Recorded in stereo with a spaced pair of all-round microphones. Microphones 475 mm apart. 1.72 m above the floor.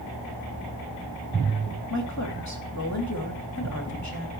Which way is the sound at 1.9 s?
35° left (ahead or behind).